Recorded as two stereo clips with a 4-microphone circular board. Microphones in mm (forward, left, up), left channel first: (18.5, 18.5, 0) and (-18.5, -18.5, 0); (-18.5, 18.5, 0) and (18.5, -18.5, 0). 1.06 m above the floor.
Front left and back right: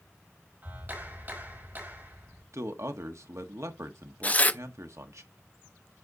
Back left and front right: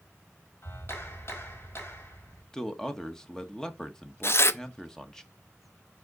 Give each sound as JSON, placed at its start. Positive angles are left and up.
{"t": 0.6, "sound": "a clap", "azimuth_deg": 175, "distance_m": 4.5}
{"t": 2.5, "sound": "a man speaking", "azimuth_deg": -145, "distance_m": 1.3}
{"t": 4.2, "sound": "tearing paper", "azimuth_deg": 105, "distance_m": 0.6}